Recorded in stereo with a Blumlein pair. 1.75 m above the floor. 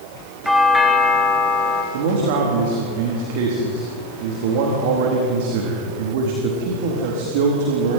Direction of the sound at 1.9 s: 50° right.